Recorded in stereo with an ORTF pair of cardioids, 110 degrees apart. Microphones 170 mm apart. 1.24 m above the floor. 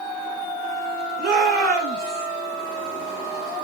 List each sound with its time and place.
1.2 s a shout: 65° right, 5 m